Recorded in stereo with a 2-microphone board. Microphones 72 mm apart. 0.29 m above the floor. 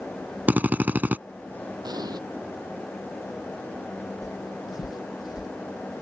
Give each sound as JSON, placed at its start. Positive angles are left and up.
{"t": 0.5, "sound": "a drill", "side_deg": -25}
{"t": 1.8, "sound": "an explosion", "side_deg": -70}
{"t": 4.2, "sound": "footsteps", "side_deg": 50}